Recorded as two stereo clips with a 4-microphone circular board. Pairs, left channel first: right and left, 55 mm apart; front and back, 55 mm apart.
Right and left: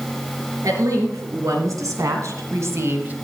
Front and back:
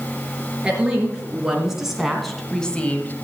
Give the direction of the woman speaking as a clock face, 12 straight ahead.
8 o'clock.